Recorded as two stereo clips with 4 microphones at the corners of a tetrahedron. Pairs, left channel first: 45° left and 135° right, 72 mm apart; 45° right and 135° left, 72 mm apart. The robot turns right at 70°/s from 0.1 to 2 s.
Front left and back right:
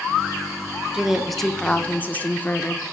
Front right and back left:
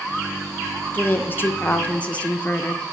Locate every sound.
0.9 s a woman speaking: 70° right, 0.6 m; by 2.8 s 5° left, 0.6 m